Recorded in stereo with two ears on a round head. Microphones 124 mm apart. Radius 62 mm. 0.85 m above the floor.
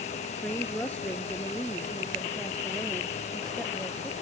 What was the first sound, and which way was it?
A woman speaking, 15° left (ahead or behind).